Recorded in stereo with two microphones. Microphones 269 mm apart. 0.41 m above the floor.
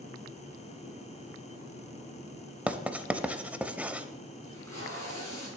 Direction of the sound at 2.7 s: 5° right (ahead or behind).